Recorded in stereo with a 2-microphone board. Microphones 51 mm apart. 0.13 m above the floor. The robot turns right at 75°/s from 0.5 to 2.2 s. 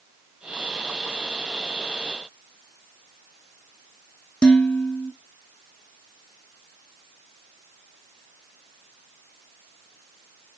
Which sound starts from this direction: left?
Dishes clattering, at 4.4 s.